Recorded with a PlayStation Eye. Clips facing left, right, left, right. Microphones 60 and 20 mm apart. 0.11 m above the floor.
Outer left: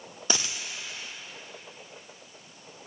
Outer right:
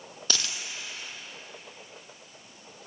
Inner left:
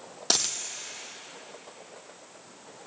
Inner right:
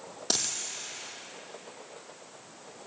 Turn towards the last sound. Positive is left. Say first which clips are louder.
# outer left 2 dB, inner left 4 dB
turn(degrees=20)  # may be behind; listen again after turning